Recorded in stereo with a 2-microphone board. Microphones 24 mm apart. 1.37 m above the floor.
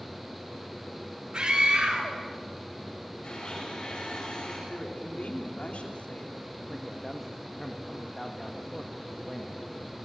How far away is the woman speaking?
About 3 m.